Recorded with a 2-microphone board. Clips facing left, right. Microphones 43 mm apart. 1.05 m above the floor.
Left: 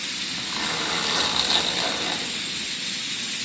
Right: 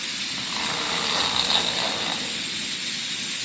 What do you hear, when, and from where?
0.2 s a zipper: 10° right (ahead or behind), 1.0 m